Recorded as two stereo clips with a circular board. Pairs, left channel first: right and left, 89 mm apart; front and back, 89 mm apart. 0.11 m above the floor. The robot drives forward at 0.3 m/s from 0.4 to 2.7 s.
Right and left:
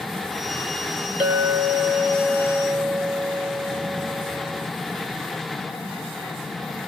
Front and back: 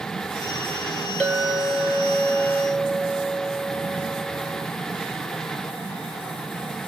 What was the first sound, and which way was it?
A clink, 70° left.